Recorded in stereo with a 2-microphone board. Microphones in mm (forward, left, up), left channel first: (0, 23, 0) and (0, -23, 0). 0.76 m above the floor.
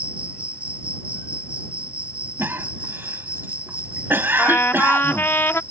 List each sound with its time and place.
0.0 s an insect: 30° right (ahead or behind)
2.4 s a cough: 55° right (ahead or behind)
4.4 s a trumpet: 55° left (ahead or behind)